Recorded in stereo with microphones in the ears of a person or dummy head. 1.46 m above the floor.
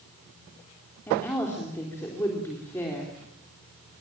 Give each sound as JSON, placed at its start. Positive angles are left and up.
{"t": 1.1, "sound": "a woman speaking", "side_deg": 10, "distance_m": 4.0}